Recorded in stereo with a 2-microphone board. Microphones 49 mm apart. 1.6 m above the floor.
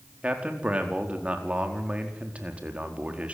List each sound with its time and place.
0.2 s a man speaking: 25° right (ahead or behind), 4.5 m